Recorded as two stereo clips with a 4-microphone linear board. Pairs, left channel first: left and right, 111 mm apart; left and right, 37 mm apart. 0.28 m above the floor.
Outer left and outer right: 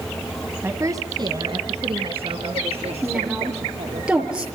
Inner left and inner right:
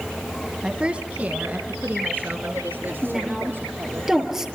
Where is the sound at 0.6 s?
20° right (ahead or behind), 1.8 m; by 4.0 s 65° right (ahead or behind), 6 m.